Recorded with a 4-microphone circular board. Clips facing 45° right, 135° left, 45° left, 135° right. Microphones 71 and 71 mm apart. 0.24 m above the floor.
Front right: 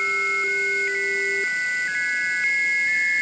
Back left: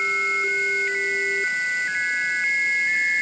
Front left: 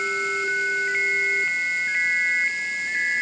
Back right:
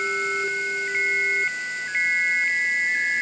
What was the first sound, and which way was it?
Only background noise.